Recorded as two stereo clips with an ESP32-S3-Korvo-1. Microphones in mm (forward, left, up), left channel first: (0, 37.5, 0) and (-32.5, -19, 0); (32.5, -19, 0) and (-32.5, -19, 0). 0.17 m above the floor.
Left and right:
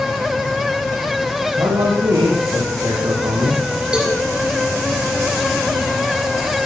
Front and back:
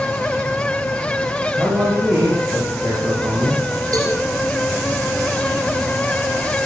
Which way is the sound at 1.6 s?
125° right.